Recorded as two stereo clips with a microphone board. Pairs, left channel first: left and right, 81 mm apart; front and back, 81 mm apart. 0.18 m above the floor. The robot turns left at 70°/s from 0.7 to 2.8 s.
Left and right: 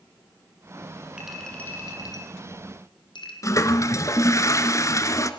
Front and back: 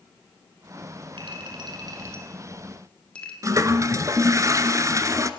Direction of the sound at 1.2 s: 170° right.